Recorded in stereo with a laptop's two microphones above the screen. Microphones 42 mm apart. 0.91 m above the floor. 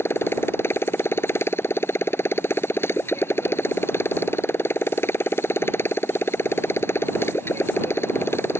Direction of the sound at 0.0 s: 75° left (ahead or behind).